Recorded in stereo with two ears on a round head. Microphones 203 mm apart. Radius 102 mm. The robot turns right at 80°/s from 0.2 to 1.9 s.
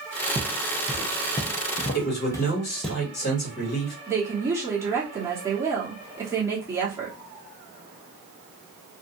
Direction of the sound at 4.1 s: 10° right (ahead or behind).